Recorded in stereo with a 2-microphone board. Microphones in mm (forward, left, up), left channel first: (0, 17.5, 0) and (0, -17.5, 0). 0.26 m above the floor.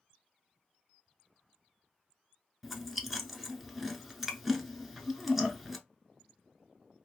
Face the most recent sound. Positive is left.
turn(degrees=-5)  # may be behind; listen again after turning